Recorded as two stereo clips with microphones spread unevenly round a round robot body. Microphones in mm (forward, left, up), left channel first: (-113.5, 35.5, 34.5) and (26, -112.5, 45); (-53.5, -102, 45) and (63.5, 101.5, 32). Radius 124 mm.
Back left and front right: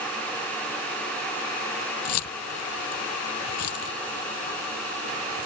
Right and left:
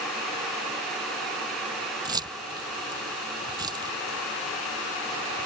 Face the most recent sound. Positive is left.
turn(degrees=135)